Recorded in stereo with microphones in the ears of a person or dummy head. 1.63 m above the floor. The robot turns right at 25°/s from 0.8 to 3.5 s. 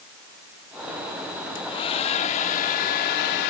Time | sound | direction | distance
1.6 | a hair dryer | 30° left | ?